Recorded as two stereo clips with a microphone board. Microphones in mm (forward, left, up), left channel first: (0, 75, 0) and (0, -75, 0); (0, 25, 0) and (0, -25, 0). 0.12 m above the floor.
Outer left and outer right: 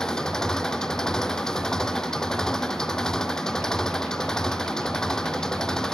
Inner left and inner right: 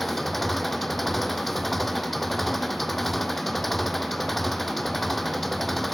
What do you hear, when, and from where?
0.0 s an engine running: 5° left (ahead or behind)